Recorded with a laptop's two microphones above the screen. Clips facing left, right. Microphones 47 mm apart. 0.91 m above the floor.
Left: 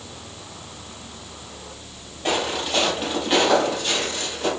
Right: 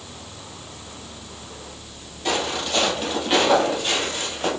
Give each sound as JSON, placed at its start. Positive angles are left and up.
{"t": 2.2, "sound": "footsteps", "side_deg": 20, "distance_m": 1.8}